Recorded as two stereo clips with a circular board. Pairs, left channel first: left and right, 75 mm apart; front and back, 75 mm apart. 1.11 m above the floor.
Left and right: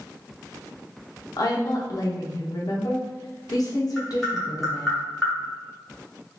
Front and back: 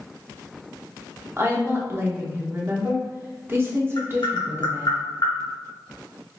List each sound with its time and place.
1.4 s a woman speaking: 120° left, 0.9 m
4.0 s tapping: straight ahead, 1.3 m